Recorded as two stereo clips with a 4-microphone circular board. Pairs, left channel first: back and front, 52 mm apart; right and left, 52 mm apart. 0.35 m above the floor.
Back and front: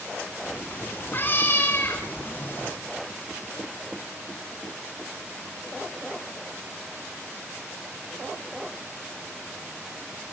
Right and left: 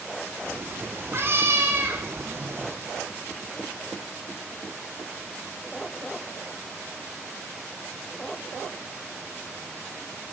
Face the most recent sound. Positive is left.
turn(degrees=130)